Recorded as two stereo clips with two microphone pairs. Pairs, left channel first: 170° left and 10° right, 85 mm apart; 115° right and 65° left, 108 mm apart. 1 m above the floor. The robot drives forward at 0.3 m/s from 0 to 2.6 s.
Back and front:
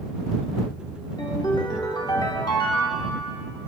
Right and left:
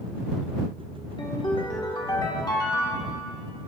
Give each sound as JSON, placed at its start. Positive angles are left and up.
{"t": 1.2, "sound": "a ringtone", "azimuth_deg": -160, "distance_m": 1.6}